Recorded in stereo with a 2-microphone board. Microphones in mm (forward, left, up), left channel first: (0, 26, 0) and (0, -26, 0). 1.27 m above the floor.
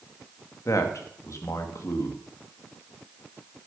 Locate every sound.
0.7 s a man speaking: 70° left (ahead or behind), 1.8 m